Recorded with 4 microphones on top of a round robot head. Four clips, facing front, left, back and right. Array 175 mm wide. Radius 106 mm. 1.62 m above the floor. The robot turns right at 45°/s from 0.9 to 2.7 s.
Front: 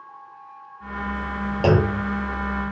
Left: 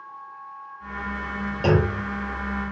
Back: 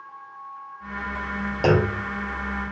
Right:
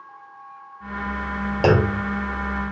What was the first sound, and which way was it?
A clunk, 85° right.